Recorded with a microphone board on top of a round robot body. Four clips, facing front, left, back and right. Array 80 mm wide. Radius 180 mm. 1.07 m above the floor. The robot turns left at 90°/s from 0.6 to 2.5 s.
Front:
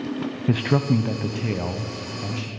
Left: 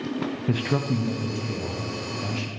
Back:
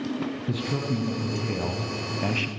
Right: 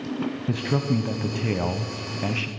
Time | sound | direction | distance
0.5 | a man speaking | 15° left | 0.9 m